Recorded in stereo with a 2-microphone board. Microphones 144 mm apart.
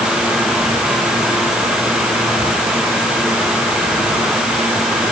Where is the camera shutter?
No camera shutter in this recording.